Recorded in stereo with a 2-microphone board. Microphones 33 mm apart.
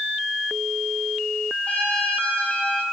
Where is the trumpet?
35° left (ahead or behind), 5 m.